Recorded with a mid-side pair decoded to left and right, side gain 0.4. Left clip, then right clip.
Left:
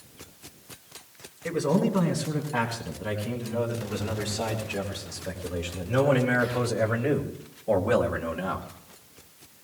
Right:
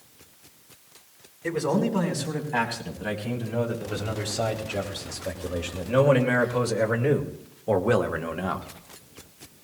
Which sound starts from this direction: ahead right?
A man speaking, at 1.4 s.